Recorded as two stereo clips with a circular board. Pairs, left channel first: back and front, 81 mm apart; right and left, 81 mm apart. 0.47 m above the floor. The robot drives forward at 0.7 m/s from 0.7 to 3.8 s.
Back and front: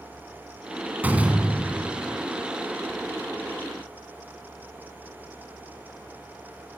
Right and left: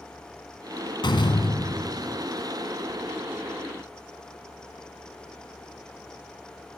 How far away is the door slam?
About 2.5 m.